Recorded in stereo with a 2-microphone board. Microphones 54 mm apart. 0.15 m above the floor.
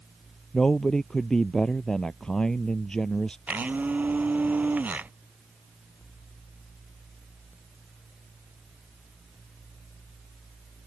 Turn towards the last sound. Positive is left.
turn(degrees=-30)  # may be behind; listen again after turning